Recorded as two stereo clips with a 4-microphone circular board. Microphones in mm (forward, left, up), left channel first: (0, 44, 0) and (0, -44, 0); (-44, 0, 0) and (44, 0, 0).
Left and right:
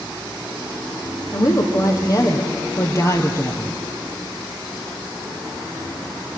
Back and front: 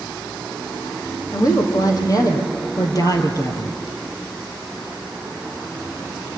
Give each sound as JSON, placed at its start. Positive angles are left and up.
{"t": 1.3, "sound": "a woman speaking", "azimuth_deg": 135, "distance_m": 4.0}